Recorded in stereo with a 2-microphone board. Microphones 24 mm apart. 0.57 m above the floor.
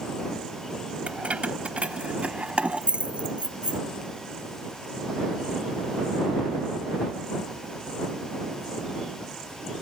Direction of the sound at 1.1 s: 65° right (ahead or behind).